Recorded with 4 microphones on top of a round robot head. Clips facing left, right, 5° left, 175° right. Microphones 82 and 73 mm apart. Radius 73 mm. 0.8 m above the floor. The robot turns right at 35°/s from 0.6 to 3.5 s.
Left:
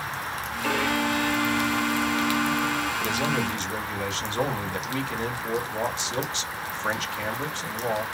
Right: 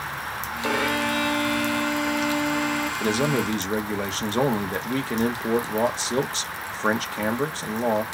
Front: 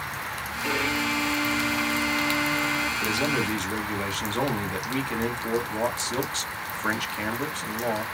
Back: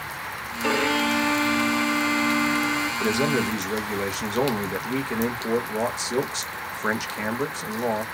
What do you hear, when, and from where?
0.6 s a violin: 170° right, 0.9 m; by 2.9 s 90° right, 0.9 m
3.0 s a man speaking: 125° right, 0.9 m; by 8.0 s 110° right, 0.9 m